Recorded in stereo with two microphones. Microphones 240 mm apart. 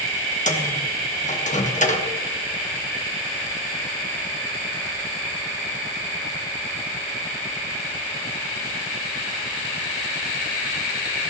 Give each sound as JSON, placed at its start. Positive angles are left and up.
{"t": 0.5, "sound": "a microwave", "side_deg": 30, "distance_m": 1.4}